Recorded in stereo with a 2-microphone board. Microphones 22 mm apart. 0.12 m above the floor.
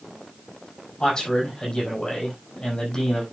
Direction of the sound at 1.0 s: 30° left (ahead or behind).